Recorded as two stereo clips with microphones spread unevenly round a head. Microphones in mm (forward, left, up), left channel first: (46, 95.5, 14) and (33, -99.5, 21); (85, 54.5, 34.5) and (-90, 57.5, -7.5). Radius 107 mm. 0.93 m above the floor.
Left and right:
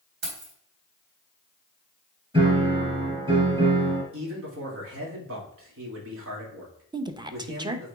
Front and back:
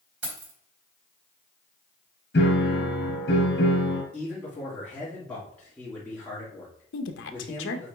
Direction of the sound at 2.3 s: 30° right.